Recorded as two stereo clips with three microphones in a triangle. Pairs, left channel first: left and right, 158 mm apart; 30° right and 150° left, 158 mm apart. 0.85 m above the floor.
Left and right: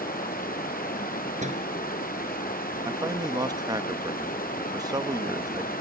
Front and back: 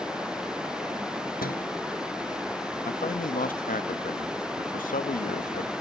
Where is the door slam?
50° right.